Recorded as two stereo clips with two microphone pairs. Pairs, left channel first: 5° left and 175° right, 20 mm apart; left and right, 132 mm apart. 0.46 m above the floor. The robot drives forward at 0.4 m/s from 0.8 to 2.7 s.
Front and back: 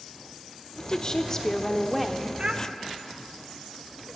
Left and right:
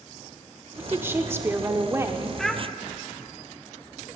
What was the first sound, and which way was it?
A woman speaking, 20° right.